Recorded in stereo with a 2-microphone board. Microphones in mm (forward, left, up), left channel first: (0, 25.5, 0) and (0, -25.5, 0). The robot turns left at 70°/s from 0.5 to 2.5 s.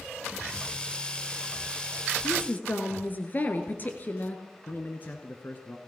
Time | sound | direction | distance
2.2 | a woman speaking | 45° left (ahead or behind) | 1.9 m
4.7 | a man speaking | 35° left (ahead or behind) | 1.9 m